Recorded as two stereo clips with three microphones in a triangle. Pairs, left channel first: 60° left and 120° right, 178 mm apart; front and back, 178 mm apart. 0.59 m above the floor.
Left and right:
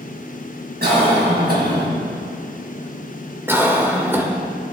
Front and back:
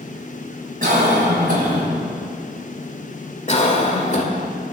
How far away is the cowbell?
No cowbell in this recording.